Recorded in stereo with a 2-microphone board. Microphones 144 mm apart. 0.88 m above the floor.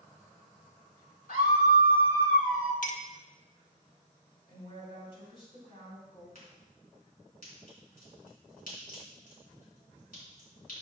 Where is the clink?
65° left (ahead or behind), 0.9 m.